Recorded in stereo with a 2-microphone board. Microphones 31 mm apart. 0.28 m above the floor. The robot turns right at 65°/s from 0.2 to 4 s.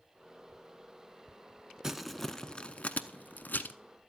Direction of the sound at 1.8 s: 20° right (ahead or behind).